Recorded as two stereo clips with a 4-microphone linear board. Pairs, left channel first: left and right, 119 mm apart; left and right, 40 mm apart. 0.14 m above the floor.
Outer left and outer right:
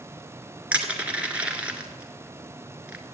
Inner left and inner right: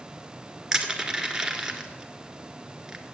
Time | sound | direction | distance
0.7 | crushing | 10° right (ahead or behind) | 1.6 m